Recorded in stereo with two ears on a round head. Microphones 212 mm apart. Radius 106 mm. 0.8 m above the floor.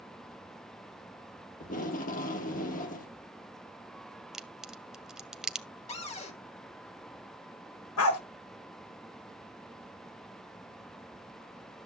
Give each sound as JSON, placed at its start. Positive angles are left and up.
{"t": 1.6, "sound": "tape being pulled", "side_deg": 35, "distance_m": 1.0}
{"t": 4.3, "sound": "a crack", "side_deg": -5, "distance_m": 0.9}
{"t": 5.9, "sound": "a cupboard door", "side_deg": 30, "distance_m": 1.2}
{"t": 8.0, "sound": "a dog barking", "side_deg": 65, "distance_m": 1.4}